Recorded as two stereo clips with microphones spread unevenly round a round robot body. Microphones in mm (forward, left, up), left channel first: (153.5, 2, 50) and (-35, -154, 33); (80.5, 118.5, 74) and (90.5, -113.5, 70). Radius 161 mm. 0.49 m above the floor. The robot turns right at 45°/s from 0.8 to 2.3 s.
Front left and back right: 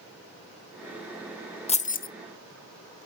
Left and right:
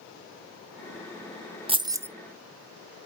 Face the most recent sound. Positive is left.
turn(degrees=0)